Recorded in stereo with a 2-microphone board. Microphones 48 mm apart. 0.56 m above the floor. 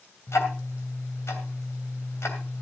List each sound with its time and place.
0.3 s ticking: 75° left (ahead or behind), 2.5 m